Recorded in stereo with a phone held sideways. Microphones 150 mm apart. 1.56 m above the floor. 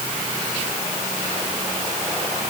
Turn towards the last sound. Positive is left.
No sound to turn to.